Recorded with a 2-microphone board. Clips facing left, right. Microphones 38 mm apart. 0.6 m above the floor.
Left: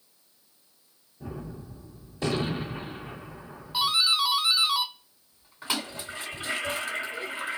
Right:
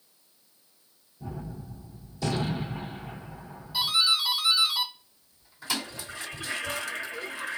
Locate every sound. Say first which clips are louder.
1.2 s a gunshot: even; 50° left (ahead or behind), 1.8 m
3.7 s a doorbell: left 1 dB; 40° left (ahead or behind), 2 m
5.7 s a toilet flushing: left 1 dB; 40° left (ahead or behind), 1.7 m